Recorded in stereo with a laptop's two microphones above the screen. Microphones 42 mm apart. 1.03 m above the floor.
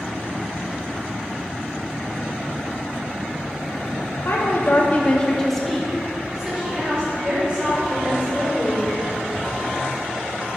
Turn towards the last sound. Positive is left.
turn(degrees=-30)  # may be behind; listen again after turning